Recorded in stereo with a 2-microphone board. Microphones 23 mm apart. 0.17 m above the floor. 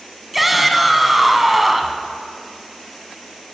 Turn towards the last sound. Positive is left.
turn(degrees=-5)  # may be behind; listen again after turning